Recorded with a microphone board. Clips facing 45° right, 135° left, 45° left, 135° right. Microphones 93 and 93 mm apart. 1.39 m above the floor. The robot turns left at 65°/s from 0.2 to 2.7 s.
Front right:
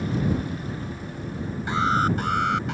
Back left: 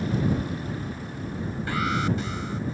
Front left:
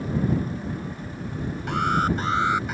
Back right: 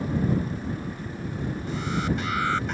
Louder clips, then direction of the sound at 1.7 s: Front right 4 dB, front left 6 dB; 25° left.